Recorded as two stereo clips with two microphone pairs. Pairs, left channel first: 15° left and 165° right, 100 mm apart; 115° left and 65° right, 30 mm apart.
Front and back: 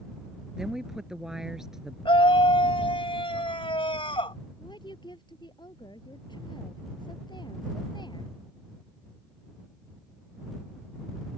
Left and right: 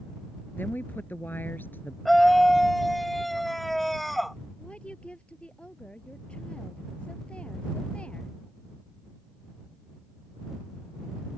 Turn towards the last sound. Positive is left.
turn(degrees=55)